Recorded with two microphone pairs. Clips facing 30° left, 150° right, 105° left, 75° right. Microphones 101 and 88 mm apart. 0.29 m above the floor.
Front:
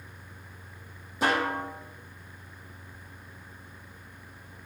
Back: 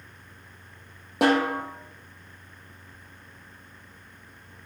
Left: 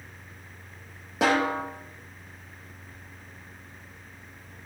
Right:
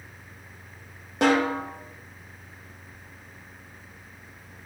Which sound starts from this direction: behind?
A snare drum, at 1.2 s.